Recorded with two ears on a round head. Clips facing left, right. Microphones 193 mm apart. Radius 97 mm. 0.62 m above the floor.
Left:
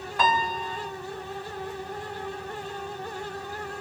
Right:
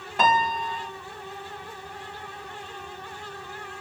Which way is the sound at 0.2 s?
20° right (ahead or behind).